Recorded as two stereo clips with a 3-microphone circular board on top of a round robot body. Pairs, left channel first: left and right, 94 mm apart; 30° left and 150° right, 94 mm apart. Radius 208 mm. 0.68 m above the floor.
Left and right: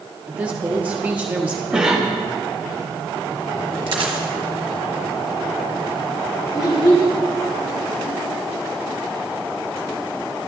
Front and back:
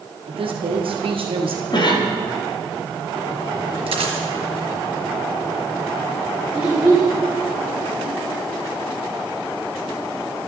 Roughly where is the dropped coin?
Behind right.